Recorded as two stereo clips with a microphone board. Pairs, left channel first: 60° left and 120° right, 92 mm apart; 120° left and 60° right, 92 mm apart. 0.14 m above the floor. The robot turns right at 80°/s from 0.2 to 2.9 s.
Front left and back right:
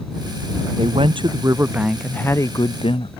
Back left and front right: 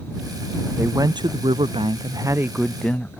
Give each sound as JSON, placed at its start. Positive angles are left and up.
{"t": 0.8, "sound": "a woman speaking", "azimuth_deg": -125}